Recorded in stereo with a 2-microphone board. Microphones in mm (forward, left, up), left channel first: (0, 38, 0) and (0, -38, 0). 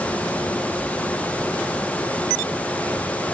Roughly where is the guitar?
No guitar in this recording.